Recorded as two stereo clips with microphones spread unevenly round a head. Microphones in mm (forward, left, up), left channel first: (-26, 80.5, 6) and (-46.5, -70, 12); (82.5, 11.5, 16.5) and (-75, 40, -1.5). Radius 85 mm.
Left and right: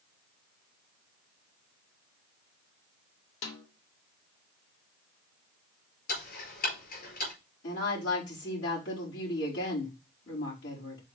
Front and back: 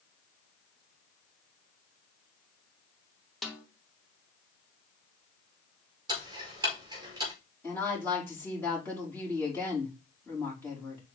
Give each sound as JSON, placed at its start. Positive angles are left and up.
{"t": 3.4, "sound": "a snare drum", "azimuth_deg": 80, "distance_m": 1.9}
{"t": 6.1, "sound": "ticking", "azimuth_deg": 105, "distance_m": 4.5}
{"t": 7.6, "sound": "a woman speaking", "azimuth_deg": 65, "distance_m": 5.0}